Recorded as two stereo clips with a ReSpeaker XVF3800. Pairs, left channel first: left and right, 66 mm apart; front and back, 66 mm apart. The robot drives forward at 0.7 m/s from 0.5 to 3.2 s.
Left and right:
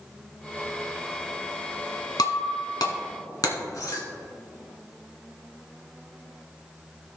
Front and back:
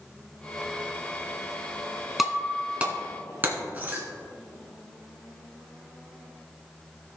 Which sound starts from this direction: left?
Breaking glass, at 2.2 s.